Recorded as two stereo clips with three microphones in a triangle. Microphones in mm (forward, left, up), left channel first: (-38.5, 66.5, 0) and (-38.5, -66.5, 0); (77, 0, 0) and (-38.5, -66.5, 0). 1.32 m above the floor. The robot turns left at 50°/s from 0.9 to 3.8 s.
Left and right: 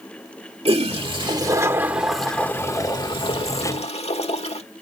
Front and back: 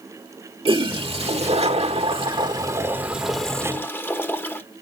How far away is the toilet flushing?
About 1.3 m.